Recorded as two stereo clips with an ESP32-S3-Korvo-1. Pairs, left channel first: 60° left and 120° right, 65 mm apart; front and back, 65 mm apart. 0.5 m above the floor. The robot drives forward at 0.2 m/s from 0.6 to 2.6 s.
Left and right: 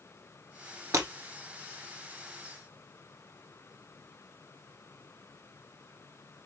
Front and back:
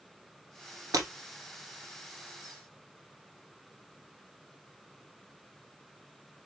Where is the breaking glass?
150° right, 1.6 m; by 1.1 s 155° right, 1.6 m.